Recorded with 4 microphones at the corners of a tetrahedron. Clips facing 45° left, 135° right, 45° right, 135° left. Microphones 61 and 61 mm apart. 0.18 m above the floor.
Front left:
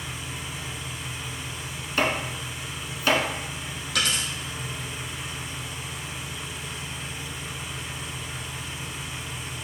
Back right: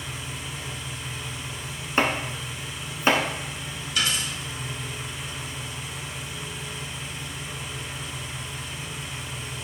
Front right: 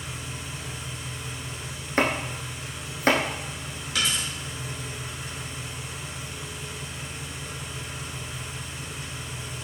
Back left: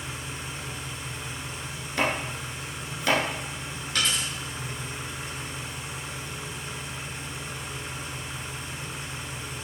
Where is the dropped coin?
45° left, 3.5 m.